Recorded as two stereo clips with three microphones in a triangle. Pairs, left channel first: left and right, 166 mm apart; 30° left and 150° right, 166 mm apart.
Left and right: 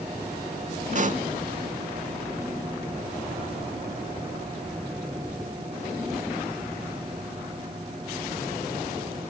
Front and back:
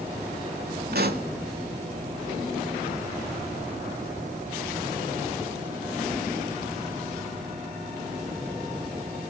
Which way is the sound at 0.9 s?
135° right.